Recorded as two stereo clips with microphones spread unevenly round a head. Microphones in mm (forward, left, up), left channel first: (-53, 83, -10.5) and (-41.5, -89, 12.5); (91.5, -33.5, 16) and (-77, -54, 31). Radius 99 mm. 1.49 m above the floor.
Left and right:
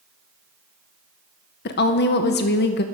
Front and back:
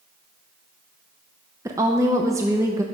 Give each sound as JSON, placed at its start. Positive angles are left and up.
{"t": 1.6, "sound": "a woman speaking", "azimuth_deg": 115, "distance_m": 0.7}